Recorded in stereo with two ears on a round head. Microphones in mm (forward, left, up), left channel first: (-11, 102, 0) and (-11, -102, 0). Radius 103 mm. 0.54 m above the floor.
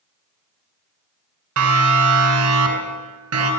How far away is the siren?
About 6 m.